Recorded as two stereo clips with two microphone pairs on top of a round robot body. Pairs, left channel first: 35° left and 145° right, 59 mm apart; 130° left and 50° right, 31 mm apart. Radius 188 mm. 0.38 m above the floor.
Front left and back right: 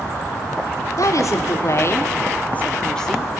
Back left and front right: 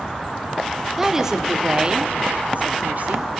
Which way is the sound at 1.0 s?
35° left.